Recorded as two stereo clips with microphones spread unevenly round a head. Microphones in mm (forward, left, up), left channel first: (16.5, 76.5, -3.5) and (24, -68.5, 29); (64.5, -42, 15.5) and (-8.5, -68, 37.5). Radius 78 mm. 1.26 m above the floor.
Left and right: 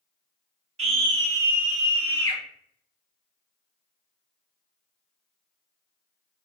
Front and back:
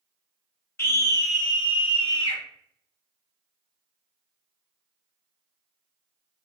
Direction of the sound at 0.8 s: 40° right.